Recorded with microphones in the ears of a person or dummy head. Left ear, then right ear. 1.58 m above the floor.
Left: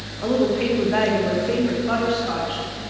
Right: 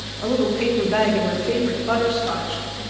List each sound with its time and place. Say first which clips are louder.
0.2 s a woman speaking: even; 5° right (ahead or behind), 1.8 m; by 2.6 s 20° right (ahead or behind), 3 m